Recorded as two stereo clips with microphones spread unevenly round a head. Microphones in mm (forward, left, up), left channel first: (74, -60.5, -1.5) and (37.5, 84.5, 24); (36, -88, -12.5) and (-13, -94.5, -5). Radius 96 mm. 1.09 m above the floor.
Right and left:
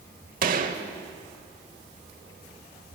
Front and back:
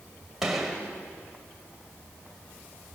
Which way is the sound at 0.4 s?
105° left.